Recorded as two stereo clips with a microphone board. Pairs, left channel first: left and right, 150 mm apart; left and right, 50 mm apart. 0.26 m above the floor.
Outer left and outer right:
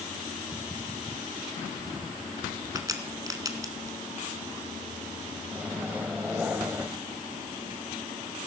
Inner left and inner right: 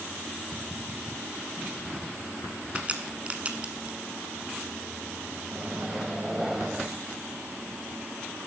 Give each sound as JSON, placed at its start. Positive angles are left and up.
{"t": 2.8, "sound": "a crack", "side_deg": -25, "distance_m": 1.4}
{"t": 5.5, "sound": "a microwave", "side_deg": -10, "distance_m": 0.9}